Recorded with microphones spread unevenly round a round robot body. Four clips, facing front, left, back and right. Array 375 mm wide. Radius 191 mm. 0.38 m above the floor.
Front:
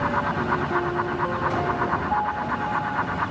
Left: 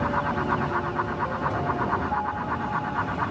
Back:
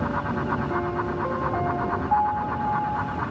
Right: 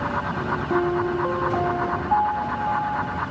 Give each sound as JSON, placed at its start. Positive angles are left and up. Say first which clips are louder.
{"t": 0.7, "sound": "a piano", "louder": "right 6 dB, front 2 dB", "azimuth_deg": -105}